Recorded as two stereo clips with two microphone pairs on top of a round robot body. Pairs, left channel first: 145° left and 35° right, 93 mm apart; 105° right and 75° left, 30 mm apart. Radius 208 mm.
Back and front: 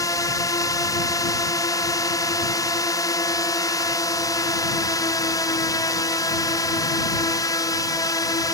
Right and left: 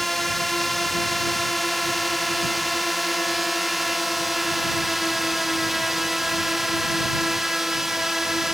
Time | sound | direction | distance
0.0 | a drone | 160° left | ?